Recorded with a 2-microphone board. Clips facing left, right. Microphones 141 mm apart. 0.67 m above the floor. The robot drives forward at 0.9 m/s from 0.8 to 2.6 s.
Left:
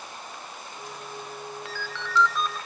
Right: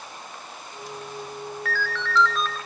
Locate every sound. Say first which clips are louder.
1.6 s a ringtone: right 6 dB; 20° left (ahead or behind), 0.9 m; by 2.6 s 10° left (ahead or behind), 1.7 m